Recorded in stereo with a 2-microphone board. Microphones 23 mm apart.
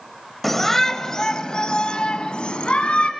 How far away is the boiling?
I don't hear boiling.